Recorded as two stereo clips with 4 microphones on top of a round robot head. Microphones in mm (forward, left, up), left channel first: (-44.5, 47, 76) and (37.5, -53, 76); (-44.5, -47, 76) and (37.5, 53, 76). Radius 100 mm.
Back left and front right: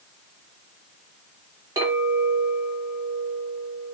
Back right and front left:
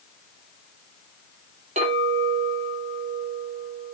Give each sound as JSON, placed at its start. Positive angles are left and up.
{"t": 1.8, "sound": "a clink", "azimuth_deg": 10, "distance_m": 1.6}